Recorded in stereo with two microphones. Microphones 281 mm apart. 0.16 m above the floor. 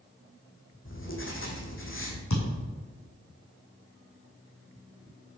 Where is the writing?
45° left (ahead or behind), 1.4 m.